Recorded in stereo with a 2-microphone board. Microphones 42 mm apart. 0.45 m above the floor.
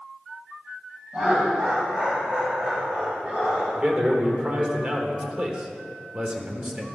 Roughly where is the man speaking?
Right.